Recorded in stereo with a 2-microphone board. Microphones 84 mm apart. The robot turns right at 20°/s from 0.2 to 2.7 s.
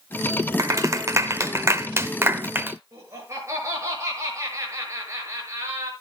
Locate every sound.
0.6 s a clap: 40° right (ahead or behind), 0.7 m; by 2.8 s 20° right (ahead or behind), 0.7 m
2.9 s laughter: 35° right (ahead or behind), 7 m